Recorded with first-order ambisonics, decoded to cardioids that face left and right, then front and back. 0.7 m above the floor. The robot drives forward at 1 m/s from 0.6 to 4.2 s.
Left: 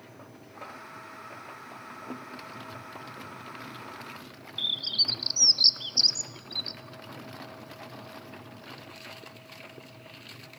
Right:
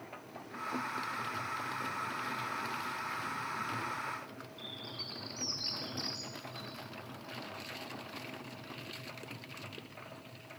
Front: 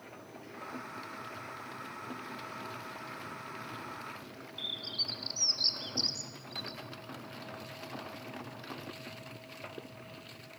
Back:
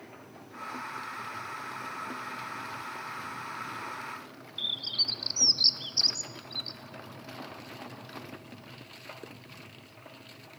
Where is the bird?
110° left, 0.8 m.